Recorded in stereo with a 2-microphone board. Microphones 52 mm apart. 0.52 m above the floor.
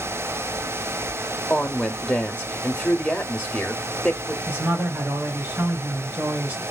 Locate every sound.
1.5 s a woman speaking: 20° left (ahead or behind), 0.9 m
4.5 s a man speaking: 30° right (ahead or behind), 3.5 m